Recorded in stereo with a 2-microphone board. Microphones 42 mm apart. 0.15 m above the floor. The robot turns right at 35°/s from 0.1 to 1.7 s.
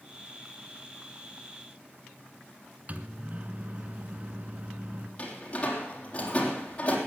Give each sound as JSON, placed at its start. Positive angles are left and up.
{"t": 2.9, "sound": "a microwave", "side_deg": -35, "distance_m": 1.3}
{"t": 5.2, "sound": "a door slam", "side_deg": 30, "distance_m": 3.5}